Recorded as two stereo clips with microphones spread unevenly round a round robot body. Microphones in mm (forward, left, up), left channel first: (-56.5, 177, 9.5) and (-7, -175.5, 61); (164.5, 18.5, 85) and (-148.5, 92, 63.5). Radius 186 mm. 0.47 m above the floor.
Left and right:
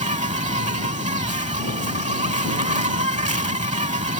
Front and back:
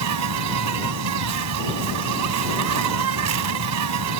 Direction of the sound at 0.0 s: 155° right.